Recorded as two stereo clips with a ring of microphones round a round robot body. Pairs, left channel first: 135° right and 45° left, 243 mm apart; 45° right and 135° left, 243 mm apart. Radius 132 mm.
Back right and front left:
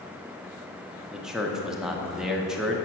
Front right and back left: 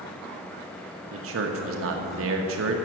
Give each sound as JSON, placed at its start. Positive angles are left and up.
{"t": 1.1, "sound": "a man speaking", "azimuth_deg": 135, "distance_m": 0.9}